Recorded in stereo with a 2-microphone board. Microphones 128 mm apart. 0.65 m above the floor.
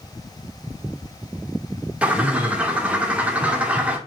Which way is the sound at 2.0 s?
10° right (ahead or behind).